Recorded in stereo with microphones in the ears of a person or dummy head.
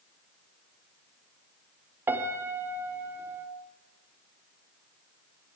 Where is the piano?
10° right (ahead or behind), 1.0 m.